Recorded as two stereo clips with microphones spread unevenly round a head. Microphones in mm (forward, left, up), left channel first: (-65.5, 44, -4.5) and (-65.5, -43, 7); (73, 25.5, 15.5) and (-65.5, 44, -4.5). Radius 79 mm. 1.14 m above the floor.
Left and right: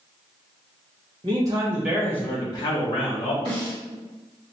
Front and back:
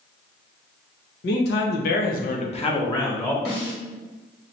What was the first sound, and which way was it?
A man speaking, 30° right.